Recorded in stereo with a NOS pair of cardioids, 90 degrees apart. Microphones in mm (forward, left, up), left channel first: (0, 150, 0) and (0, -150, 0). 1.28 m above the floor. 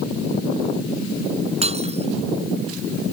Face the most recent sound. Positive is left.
turn(degrees=-20)